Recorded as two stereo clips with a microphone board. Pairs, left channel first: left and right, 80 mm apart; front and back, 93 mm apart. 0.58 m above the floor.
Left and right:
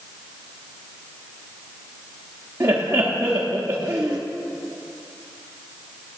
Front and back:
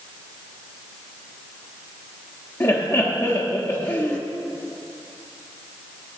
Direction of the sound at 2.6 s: 40° right.